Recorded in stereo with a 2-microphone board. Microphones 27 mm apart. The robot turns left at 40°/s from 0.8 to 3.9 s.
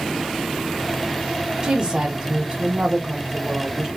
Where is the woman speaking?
45° right, 1.2 m; by 3.9 s 135° right, 1.2 m.